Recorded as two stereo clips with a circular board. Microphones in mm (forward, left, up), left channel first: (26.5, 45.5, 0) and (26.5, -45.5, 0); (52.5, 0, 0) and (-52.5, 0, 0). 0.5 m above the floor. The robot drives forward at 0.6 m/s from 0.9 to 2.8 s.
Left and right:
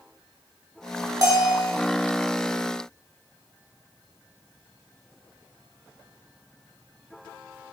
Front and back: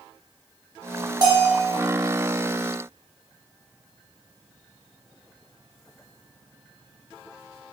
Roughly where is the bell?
Behind right.